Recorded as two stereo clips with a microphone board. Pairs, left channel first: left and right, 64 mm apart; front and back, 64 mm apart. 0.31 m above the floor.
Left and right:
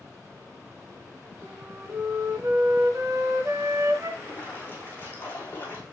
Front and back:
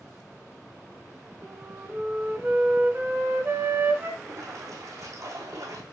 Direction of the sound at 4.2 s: 155° left.